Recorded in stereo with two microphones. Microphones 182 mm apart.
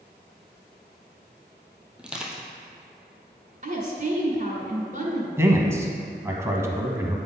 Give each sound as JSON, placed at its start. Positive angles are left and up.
{"t": 2.0, "sound": "crushing", "side_deg": -5, "distance_m": 1.2}
{"t": 3.6, "sound": "a woman speaking", "side_deg": -45, "distance_m": 1.6}
{"t": 5.4, "sound": "a man speaking", "side_deg": -15, "distance_m": 1.0}